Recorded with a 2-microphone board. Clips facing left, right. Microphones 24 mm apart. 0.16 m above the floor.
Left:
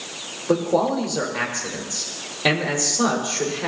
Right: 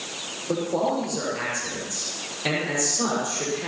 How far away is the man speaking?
About 6 m.